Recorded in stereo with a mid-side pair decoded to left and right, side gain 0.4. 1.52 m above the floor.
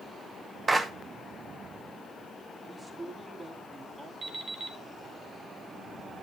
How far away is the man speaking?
About 4 m.